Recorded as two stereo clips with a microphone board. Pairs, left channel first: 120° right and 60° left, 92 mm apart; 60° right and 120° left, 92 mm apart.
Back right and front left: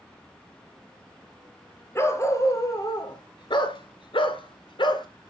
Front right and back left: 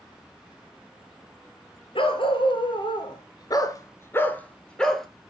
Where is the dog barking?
60° right, 1.3 m; by 5.1 s 145° right, 1.2 m.